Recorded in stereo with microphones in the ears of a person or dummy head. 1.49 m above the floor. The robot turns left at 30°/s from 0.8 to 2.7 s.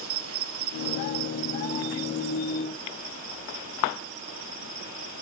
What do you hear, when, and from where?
0.0 s an insect: 80° right, 2 m; by 5.2 s 135° right, 2 m